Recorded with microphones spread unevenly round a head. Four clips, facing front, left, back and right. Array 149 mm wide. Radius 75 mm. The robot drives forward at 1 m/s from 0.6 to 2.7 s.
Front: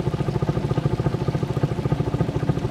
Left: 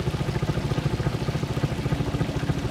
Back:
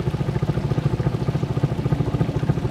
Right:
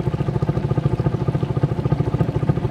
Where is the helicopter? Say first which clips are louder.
Right 5 dB, front 1 dB; 55° right; by 2.7 s 85° right.